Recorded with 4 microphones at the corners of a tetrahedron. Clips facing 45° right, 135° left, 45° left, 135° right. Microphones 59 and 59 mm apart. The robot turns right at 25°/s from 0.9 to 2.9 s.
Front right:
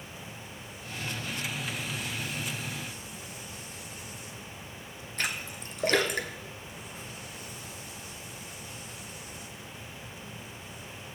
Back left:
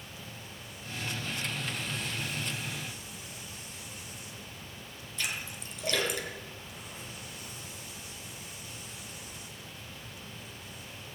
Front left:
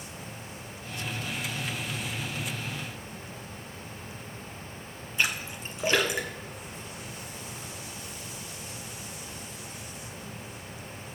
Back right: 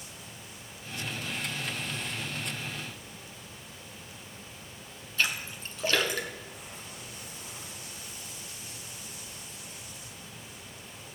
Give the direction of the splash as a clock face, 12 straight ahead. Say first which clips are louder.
Front right 3 dB, front left 1 dB; 1 o'clock.